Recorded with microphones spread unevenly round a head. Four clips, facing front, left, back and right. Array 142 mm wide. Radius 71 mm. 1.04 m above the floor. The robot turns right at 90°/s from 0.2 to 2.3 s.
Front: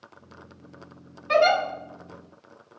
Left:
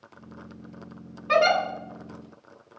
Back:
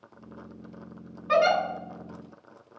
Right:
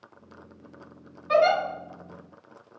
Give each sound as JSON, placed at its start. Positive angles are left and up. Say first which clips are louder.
{"t": 1.3, "sound": "a giggle", "louder": "even, front 2 dB", "azimuth_deg": 85, "distance_m": 1.3}